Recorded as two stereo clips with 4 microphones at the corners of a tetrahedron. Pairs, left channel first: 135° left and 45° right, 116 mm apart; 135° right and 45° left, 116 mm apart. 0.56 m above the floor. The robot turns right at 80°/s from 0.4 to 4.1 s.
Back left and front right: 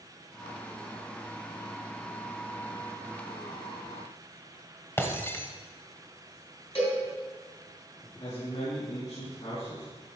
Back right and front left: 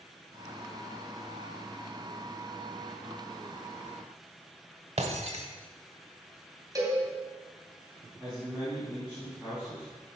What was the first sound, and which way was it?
Breaking glass, 65° left.